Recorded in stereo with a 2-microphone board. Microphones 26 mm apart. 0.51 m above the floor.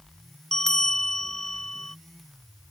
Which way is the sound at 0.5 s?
20° left (ahead or behind).